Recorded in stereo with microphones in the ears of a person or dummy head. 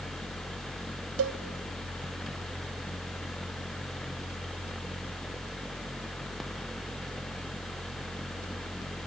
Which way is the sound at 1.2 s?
70° right (ahead or behind).